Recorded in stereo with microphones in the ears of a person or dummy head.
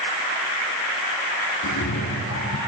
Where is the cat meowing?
70° left (ahead or behind), 5.5 m.